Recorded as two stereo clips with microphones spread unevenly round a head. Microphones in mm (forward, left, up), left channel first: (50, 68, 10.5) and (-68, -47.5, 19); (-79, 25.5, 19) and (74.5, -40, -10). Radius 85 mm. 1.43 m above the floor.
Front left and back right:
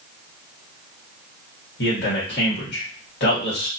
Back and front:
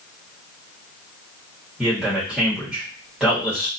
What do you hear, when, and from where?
1.8 s a man speaking: 65° left, 1.5 m